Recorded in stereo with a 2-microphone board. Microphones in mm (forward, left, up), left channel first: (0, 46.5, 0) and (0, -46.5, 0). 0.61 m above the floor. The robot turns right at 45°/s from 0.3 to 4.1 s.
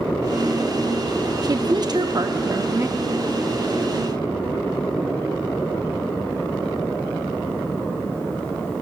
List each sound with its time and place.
1.4 s a woman speaking: 110° right, 0.8 m; by 3.0 s 40° right, 0.8 m